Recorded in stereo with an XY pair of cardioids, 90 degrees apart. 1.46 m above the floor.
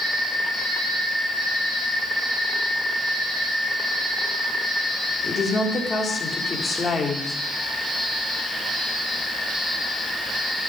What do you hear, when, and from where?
5.2 s a woman speaking: 40° left, 3.5 m